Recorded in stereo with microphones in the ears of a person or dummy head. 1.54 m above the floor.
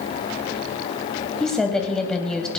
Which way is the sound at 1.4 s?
5° left (ahead or behind).